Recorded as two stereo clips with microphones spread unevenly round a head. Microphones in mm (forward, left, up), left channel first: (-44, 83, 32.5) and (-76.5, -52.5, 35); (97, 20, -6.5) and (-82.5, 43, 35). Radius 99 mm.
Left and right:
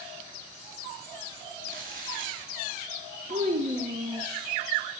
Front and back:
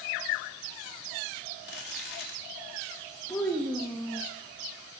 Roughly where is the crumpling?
Ahead right.